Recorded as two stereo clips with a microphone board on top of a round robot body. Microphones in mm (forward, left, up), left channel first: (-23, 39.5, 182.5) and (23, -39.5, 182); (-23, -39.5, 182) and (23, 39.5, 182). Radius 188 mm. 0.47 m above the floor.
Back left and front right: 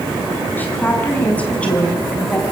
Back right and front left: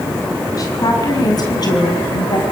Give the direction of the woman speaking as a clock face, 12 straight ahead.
6 o'clock.